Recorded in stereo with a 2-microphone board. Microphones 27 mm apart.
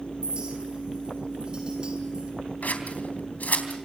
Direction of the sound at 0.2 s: 40° right (ahead or behind).